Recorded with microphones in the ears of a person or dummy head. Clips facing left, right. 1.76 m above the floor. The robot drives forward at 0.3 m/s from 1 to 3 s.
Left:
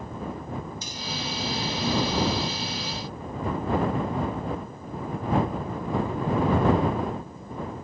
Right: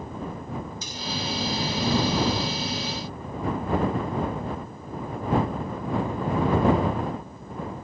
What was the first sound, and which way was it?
Cutlery clinking, 70° right (ahead or behind).